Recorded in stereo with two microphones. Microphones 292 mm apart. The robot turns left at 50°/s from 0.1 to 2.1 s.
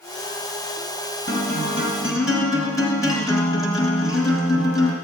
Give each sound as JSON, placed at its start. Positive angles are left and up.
{"t": 1.3, "sound": "a guitar", "azimuth_deg": -135, "distance_m": 1.7}